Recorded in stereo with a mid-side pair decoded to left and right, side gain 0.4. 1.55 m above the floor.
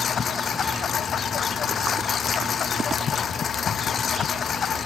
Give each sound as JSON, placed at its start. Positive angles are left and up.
{"t": 0.0, "sound": "a lawn mower", "azimuth_deg": 55}